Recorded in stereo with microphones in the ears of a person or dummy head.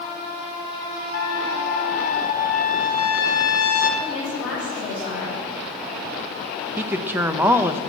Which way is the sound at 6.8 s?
20° right (ahead or behind).